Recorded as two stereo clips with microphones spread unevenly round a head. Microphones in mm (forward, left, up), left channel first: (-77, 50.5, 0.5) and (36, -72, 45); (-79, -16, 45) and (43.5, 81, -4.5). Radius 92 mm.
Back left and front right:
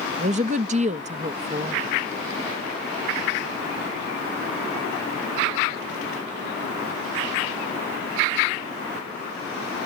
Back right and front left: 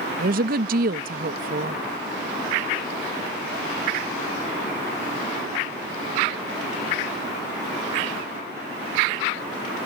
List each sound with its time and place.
0.2 s a woman speaking: 10° left